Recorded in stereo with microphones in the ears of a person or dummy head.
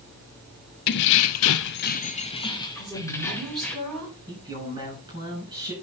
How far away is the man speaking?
About 8 m.